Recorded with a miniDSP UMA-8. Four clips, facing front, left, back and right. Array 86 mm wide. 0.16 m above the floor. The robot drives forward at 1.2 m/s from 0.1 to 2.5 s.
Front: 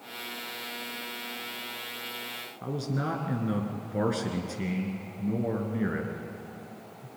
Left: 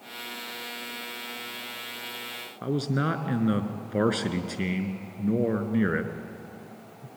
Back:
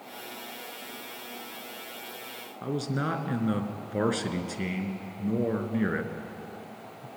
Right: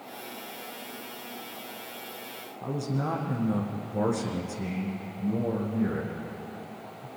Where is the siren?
No siren in this recording.